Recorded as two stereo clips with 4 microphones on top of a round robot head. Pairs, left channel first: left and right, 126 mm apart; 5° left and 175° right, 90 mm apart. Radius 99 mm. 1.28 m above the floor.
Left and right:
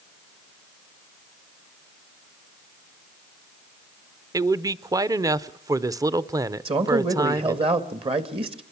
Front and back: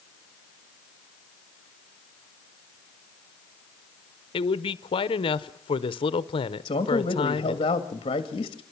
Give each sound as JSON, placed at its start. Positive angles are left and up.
{"t": 4.3, "sound": "a man speaking", "azimuth_deg": -25, "distance_m": 0.8}
{"t": 6.7, "sound": "a man speaking", "azimuth_deg": -45, "distance_m": 1.8}